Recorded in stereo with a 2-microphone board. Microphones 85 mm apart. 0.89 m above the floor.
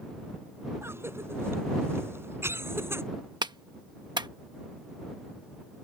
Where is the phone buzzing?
No phone buzzing in this recording.